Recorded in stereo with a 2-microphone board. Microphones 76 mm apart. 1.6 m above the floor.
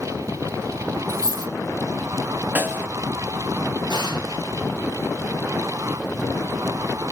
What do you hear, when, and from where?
1.1 s a dropped coin: 70° right (ahead or behind), 3.5 m
2.5 s a snare drum: 25° right (ahead or behind), 1.3 m
3.9 s an explosion: 80° right, 5.5 m